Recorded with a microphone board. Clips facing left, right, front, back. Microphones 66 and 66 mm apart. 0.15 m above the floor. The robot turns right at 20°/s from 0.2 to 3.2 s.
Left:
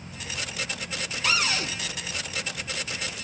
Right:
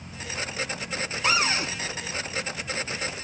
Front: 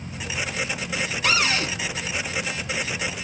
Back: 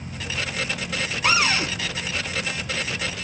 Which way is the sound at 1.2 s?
135° right.